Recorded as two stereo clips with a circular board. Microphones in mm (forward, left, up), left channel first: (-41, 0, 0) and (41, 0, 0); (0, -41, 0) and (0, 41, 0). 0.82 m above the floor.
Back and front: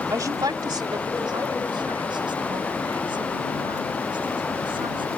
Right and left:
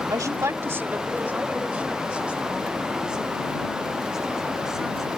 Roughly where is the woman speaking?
Ahead left.